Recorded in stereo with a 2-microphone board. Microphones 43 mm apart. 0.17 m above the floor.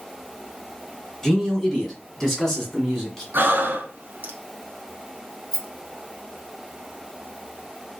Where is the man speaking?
5° left (ahead or behind), 1.7 m.